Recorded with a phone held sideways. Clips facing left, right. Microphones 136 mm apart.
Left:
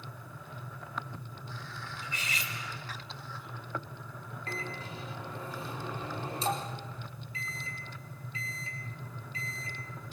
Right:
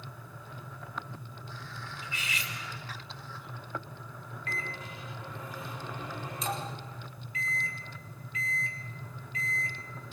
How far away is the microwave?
About 5 m.